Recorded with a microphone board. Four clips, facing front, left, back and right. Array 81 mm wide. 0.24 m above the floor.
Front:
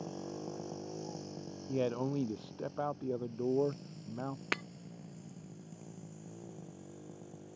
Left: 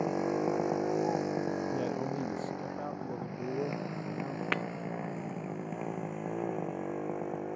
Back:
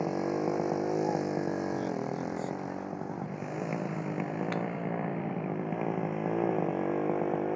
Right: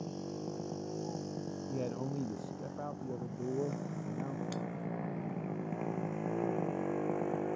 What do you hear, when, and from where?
0.0 s a motorcycle: 130° left; by 7.5 s 175° right
1.7 s a man speaking: 5° left
4.5 s breaking glass: 75° left